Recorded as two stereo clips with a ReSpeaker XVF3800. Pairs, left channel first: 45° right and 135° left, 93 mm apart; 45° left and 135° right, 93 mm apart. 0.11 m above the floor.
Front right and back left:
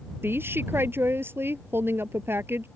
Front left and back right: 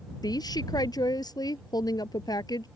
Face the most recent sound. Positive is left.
turn(degrees=75)